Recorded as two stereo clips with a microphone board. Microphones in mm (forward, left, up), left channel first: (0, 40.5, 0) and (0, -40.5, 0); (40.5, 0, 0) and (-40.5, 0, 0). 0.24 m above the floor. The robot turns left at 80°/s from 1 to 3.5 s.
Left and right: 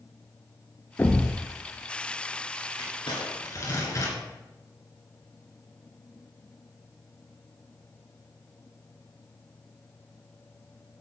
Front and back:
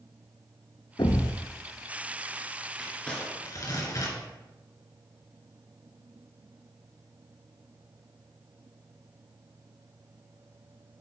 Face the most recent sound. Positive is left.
turn(degrees=45)